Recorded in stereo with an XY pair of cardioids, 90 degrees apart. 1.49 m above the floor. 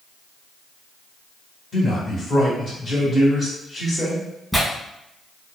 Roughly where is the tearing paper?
Ahead.